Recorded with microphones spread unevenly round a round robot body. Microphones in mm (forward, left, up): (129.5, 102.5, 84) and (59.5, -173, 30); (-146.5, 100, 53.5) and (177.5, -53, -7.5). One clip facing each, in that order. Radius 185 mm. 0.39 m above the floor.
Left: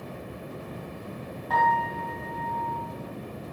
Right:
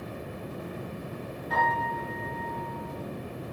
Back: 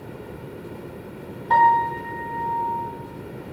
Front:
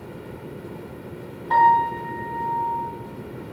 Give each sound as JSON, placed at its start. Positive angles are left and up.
{"t": 1.5, "sound": "a piano", "azimuth_deg": 120, "distance_m": 2.5}